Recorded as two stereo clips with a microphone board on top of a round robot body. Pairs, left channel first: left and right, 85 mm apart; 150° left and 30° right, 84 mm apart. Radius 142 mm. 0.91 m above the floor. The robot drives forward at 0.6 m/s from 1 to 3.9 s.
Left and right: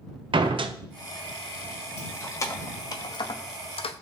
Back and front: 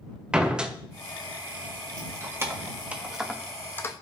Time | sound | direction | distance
0.3 | a door slam | 110° right | 0.9 m
2.0 | keys jangling | 30° left | 1.3 m